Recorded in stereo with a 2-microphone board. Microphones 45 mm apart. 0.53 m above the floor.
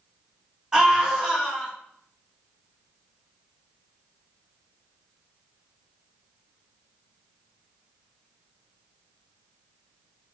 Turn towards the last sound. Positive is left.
turn(degrees=-15)  # may be behind; listen again after turning